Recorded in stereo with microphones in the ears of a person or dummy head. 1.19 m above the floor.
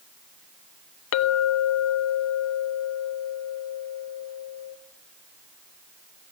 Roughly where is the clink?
Left.